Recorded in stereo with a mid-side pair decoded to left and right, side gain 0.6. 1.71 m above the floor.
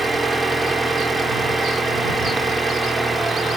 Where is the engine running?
20° right.